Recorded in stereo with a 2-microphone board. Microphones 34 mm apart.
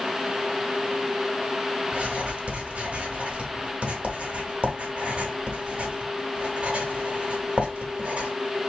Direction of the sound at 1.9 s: 35° right (ahead or behind).